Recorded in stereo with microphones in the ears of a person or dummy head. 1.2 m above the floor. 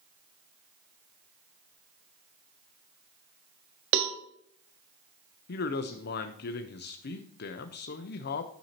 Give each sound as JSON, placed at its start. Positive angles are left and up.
{"t": 3.9, "sound": "a cowbell", "side_deg": -65, "distance_m": 1.1}
{"t": 5.5, "sound": "a man speaking", "side_deg": 55, "distance_m": 0.8}